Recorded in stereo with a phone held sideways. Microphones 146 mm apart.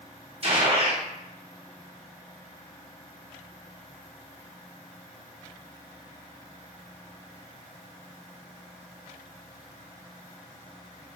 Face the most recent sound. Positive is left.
turn(degrees=-45)  # may be behind; listen again after turning